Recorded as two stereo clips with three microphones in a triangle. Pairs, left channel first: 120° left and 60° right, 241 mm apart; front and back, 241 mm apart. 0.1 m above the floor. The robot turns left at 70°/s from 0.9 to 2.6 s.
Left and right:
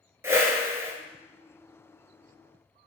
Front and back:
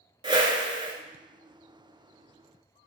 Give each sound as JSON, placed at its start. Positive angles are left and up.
{"t": 0.2, "sound": "a whoosh", "azimuth_deg": -125, "distance_m": 0.6}